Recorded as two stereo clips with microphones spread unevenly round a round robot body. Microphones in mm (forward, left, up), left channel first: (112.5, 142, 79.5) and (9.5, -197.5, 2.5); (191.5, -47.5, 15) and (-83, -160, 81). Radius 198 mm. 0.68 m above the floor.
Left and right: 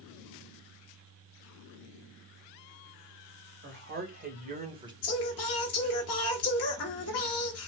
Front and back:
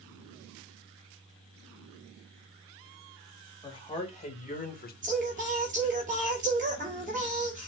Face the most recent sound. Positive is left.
turn(degrees=130)